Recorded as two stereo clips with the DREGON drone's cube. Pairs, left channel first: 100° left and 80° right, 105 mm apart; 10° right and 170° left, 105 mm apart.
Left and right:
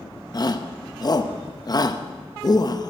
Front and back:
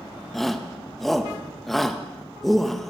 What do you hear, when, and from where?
0.3 s a shout: 80° left, 0.7 m